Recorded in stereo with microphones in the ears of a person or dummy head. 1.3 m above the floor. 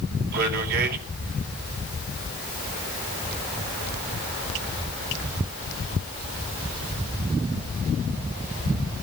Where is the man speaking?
55° right (ahead or behind), 3.5 m.